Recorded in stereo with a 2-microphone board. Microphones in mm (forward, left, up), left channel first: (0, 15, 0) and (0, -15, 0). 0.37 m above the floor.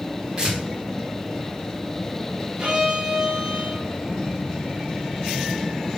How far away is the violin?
About 1.3 m.